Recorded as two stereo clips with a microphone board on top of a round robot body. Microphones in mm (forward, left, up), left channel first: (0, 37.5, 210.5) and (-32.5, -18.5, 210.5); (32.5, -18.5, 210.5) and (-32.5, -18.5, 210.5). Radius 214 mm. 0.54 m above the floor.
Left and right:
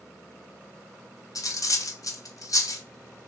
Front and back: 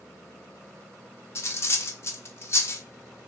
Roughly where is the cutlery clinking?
Ahead left.